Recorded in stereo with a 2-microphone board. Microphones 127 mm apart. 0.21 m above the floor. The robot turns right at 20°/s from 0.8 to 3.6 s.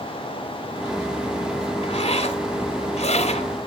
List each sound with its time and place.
1.8 s a zipper: 60° left, 1.2 m; by 3.5 s 95° left, 1.2 m